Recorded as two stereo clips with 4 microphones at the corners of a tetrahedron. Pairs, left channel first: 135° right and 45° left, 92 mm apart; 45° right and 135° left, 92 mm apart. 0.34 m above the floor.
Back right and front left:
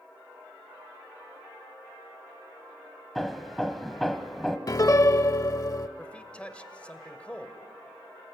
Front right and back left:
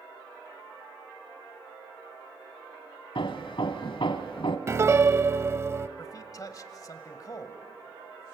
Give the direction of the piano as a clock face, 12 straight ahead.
6 o'clock.